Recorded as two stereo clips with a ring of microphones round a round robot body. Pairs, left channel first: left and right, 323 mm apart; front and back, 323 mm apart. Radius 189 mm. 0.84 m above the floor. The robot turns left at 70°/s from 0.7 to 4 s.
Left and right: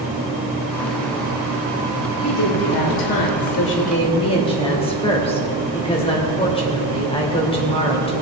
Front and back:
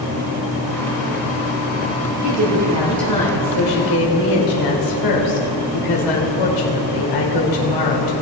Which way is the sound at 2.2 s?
140° left.